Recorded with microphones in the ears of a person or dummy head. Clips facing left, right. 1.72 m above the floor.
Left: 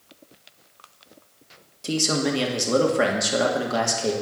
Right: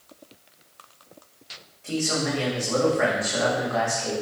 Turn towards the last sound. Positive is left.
turn(degrees=65)  # may be behind; listen again after turning